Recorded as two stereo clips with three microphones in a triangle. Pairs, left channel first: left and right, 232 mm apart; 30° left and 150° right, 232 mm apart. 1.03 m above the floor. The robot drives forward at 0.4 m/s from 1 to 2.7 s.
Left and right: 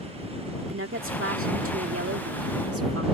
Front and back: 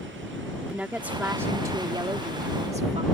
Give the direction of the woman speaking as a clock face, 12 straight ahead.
2 o'clock.